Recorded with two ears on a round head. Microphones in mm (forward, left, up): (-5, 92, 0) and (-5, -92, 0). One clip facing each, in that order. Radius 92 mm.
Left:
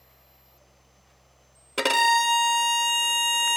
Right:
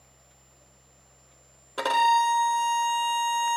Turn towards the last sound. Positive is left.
turn(degrees=30)  # may be behind; listen again after turning